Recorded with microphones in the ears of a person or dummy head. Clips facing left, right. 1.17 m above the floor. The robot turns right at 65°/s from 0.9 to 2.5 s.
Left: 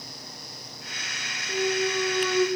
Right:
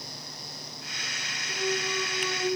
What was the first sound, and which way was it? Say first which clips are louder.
A clunk: left 5 dB; 20° left.